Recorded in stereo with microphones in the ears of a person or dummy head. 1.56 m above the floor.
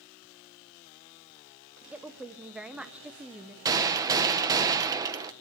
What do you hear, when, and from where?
1.9 s a woman speaking: 5° right (ahead or behind), 0.9 m
3.6 s a gunshot: 20° right (ahead or behind), 1.2 m